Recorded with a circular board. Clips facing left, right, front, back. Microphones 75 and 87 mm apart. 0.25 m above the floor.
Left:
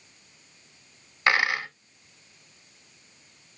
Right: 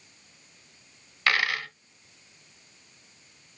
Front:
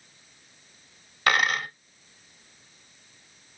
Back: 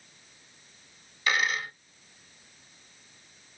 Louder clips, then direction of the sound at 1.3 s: Left 3 dB, front 4 dB; 25° left.